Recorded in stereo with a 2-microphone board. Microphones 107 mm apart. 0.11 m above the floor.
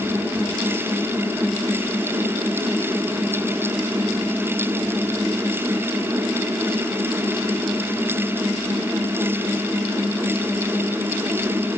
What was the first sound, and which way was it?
Only background noise.